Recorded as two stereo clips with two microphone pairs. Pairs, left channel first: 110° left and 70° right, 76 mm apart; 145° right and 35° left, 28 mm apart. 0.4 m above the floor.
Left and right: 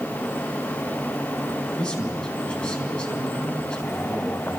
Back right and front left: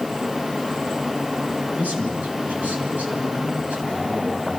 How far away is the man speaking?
About 4 m.